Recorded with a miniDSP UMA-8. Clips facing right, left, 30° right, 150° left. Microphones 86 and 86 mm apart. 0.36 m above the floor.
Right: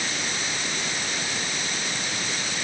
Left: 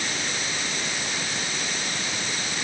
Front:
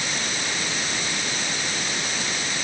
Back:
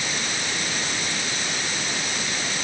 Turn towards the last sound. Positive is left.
No sound to turn to.